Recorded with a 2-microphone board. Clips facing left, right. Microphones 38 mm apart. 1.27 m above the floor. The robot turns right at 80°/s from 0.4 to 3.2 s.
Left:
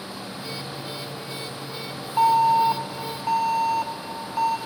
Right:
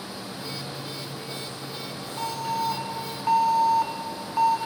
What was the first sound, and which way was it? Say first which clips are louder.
An alarm: left 11 dB; 100° left.